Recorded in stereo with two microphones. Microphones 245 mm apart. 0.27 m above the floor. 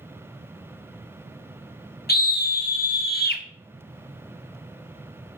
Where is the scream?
40° left (ahead or behind), 1.3 m.